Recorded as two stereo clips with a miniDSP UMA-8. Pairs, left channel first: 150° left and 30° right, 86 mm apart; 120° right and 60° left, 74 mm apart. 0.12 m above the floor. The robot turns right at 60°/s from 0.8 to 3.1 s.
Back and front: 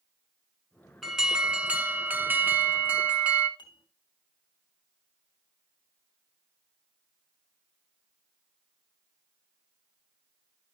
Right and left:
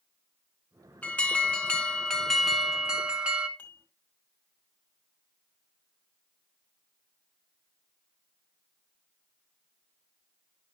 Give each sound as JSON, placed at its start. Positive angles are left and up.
{"t": 1.0, "sound": "an alarm", "azimuth_deg": -110, "distance_m": 1.3}
{"t": 3.6, "sound": "dishes clattering", "azimuth_deg": 175, "distance_m": 3.0}